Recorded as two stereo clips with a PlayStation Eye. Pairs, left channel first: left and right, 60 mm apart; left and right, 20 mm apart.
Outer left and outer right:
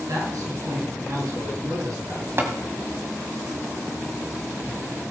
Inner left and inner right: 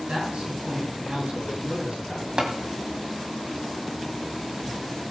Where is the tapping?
40° right (ahead or behind), 1.9 m.